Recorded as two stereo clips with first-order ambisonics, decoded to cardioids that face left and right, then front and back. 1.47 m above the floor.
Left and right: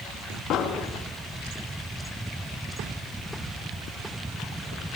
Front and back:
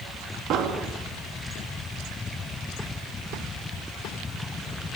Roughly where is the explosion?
Behind left.